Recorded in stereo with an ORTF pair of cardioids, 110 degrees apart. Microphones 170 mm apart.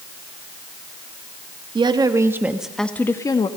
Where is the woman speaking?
30° right, 2 m; by 3.5 s 30° left, 1.9 m.